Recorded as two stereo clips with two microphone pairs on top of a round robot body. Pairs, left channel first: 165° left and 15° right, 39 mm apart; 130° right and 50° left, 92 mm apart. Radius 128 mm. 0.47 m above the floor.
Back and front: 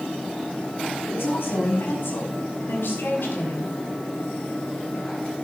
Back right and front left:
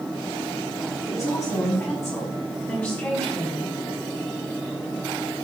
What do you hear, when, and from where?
1.0 s a woman speaking: 175° left, 6 m; by 3.8 s 155° left, 4.5 m